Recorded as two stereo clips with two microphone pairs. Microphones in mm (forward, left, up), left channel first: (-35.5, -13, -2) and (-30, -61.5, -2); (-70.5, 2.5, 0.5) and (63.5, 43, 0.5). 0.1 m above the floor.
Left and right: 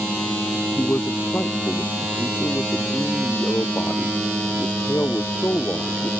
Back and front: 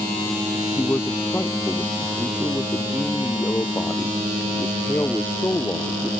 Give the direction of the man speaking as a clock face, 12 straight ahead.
8 o'clock.